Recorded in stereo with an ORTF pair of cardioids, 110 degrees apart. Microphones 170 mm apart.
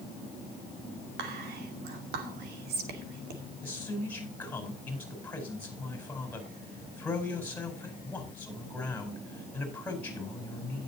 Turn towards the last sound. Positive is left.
turn(degrees=10)